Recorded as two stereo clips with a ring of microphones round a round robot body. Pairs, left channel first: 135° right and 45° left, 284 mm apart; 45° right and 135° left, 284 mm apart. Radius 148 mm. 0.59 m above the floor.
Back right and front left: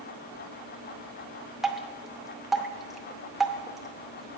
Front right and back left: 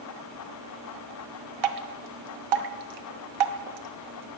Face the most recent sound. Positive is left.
turn(degrees=135)